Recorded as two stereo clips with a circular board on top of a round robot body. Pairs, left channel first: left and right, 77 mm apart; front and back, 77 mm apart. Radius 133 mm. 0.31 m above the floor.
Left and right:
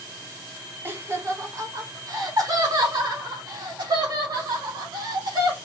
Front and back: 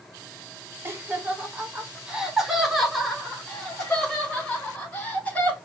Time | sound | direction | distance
0.8 | laughter | 135° right | 1.4 m